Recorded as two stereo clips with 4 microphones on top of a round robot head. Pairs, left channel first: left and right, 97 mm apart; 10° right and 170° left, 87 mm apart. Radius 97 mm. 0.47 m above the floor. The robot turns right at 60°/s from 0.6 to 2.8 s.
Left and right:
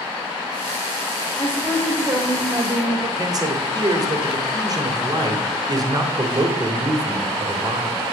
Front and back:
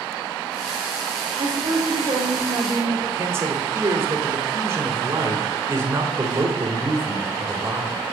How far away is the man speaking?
About 2.5 m.